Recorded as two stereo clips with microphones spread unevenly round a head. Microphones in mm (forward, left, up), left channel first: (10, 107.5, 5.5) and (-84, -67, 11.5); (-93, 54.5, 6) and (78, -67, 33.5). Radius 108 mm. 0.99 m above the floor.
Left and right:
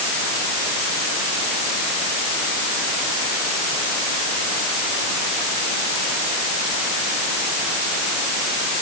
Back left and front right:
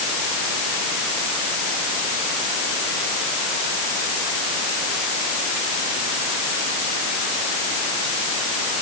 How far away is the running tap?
No running tap in this recording.